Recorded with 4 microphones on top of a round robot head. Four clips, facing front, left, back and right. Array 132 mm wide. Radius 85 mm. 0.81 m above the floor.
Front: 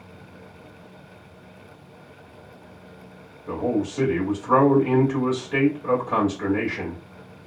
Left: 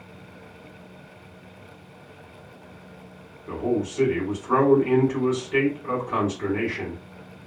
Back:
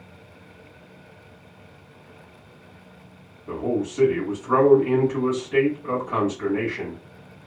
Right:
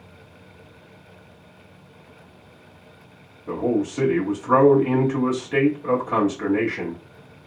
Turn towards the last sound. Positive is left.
turn(degrees=-55)